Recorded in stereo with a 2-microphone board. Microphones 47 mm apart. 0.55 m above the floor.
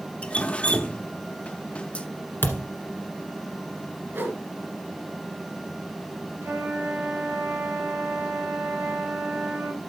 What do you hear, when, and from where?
0.2 s dripping: 25° left (ahead or behind), 0.6 m
2.4 s a thud: 50° left (ahead or behind), 1.5 m
4.1 s a whoosh: 55° right (ahead or behind), 2 m
6.4 s a flute: 70° right (ahead or behind), 3 m